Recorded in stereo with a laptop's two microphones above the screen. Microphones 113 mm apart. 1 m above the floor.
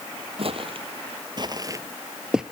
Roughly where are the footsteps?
Right.